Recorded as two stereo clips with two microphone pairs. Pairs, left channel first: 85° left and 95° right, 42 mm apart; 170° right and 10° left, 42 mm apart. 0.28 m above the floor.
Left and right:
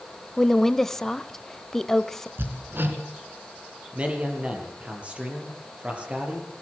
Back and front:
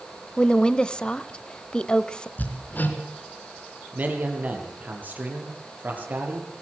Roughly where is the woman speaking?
Behind.